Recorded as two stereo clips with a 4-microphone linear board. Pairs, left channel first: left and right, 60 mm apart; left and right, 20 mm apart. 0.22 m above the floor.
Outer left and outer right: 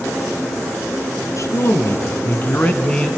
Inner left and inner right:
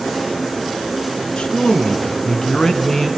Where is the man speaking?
60° left (ahead or behind), 3 m; by 3.2 s 5° left (ahead or behind), 2 m.